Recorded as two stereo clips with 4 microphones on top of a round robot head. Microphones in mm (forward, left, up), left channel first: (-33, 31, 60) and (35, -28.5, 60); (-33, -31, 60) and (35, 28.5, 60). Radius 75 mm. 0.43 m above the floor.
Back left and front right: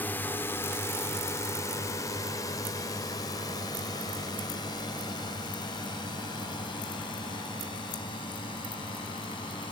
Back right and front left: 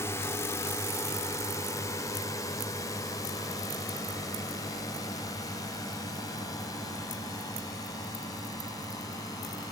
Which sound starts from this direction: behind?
A drone, at 0.0 s.